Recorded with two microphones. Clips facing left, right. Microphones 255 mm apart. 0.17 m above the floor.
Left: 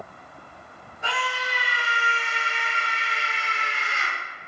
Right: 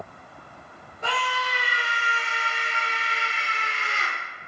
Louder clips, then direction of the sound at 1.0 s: Right 1 dB; 55° right (ahead or behind).